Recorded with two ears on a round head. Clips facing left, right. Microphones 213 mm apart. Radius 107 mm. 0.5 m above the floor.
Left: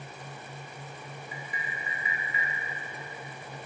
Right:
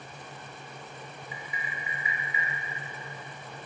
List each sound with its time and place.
1.3 s tapping: 45° left (ahead or behind), 1.9 m